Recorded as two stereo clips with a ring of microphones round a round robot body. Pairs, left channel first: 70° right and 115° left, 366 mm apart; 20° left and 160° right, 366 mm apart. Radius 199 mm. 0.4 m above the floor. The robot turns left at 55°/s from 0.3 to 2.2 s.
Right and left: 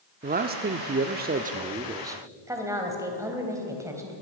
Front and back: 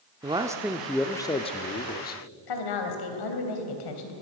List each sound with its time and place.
0.2 s a man speaking: 140° left, 0.9 m; by 2.2 s 35° left, 0.9 m
2.5 s a woman speaking: 30° left, 3.5 m